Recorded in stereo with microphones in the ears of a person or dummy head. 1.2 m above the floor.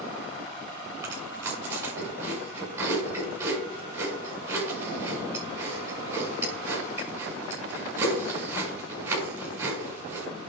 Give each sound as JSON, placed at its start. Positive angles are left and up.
{"t": 1.0, "sound": "chewing", "side_deg": -20, "distance_m": 7.0}